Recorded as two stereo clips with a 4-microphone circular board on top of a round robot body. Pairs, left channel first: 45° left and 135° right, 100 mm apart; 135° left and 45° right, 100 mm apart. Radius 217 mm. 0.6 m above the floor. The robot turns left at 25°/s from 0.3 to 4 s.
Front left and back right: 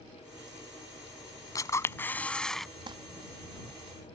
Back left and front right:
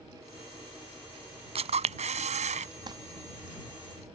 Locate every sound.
1.6 s a camera shutter: 15° right; by 2.7 s 45° right
2.9 s crumpling: 90° right; by 3.0 s 95° right